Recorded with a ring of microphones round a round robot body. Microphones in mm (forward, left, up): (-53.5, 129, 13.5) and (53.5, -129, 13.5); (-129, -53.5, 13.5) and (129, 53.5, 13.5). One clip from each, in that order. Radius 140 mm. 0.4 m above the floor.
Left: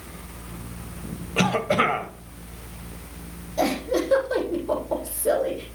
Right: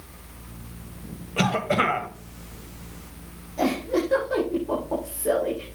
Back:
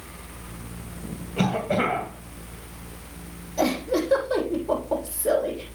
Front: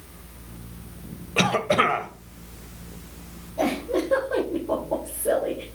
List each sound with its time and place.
1.4 s a cough: 30° left, 1.9 m
3.6 s a giggle: straight behind, 6.5 m